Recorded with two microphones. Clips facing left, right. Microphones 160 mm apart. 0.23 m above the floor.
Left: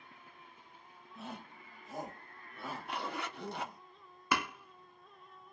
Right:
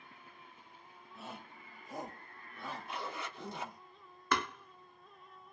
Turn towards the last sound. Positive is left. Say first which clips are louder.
# even
turn(degrees=10)  # may be behind; listen again after turning